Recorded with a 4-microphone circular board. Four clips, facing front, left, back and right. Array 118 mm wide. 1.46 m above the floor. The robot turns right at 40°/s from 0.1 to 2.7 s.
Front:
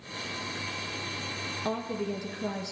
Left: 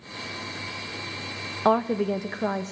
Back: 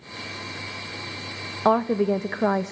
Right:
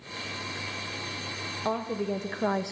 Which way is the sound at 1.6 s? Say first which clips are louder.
Left 8 dB, back 13 dB; 145° left.